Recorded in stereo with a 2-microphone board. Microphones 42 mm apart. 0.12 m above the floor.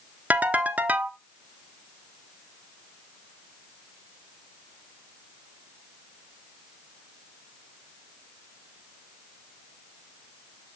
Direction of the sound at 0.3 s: 40° right (ahead or behind).